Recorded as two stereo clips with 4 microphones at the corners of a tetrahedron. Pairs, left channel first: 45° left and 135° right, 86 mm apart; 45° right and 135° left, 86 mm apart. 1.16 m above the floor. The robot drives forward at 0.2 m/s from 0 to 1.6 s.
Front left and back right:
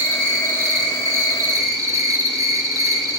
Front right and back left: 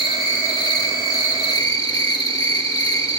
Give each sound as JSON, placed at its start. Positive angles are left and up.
{"t": 0.0, "sound": "an insect", "azimuth_deg": -75, "distance_m": 2.5}